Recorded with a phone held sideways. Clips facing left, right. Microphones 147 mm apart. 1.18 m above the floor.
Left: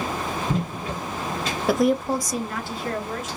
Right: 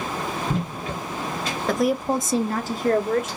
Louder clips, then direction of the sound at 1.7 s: Left 1 dB; 10° left (ahead or behind).